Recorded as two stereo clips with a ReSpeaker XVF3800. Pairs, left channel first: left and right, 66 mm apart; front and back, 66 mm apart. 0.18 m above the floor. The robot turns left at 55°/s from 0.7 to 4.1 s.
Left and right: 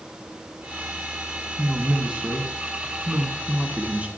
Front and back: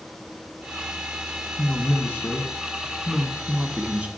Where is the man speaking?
5° right, 1.8 m; by 4.1 s 140° right, 1.8 m.